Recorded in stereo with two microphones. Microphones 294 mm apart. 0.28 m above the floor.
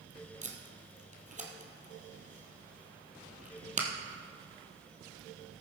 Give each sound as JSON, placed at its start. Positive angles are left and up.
{"t": 0.4, "sound": "tape being pulled", "side_deg": -25, "distance_m": 1.6}